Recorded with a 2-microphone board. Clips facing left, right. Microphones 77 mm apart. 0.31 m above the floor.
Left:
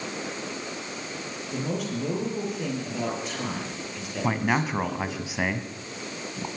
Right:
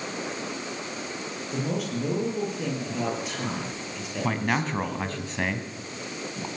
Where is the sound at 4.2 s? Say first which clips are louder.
Left 2 dB; 5° left (ahead or behind), 2.5 m.